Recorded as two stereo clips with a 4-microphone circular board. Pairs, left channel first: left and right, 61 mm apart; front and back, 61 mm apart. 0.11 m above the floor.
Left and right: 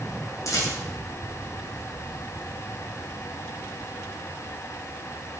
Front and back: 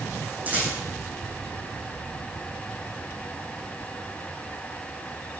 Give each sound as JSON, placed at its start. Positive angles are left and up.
{"t": 0.5, "sound": "a rattle", "azimuth_deg": 120, "distance_m": 3.0}